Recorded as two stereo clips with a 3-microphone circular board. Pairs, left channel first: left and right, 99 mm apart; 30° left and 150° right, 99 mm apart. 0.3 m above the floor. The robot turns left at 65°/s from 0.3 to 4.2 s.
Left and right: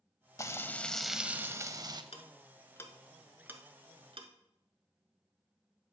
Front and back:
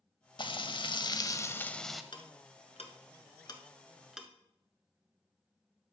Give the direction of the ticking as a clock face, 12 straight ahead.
10 o'clock.